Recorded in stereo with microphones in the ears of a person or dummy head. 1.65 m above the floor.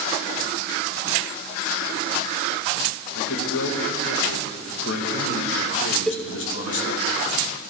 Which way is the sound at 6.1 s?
Centre (ahead or behind).